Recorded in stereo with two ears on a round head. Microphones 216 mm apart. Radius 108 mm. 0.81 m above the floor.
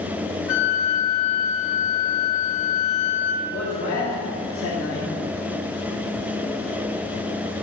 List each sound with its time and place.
0.5 s a flute: 65° left (ahead or behind), 2.5 m
3.4 s a man speaking: 55° left (ahead or behind), 2 m